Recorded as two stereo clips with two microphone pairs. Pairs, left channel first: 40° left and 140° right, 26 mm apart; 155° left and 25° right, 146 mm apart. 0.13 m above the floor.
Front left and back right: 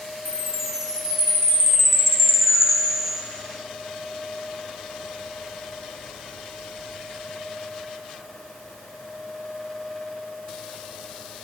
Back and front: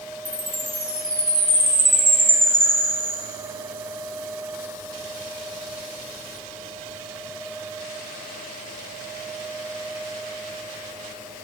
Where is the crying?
I don't hear crying.